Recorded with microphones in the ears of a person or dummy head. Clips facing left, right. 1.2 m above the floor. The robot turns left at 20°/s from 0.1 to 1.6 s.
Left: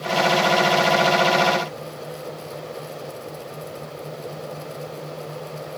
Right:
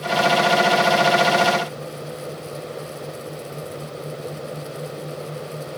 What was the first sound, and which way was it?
Only background noise.